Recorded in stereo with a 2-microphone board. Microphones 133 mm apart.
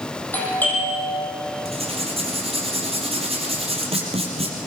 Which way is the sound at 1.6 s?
50° right (ahead or behind).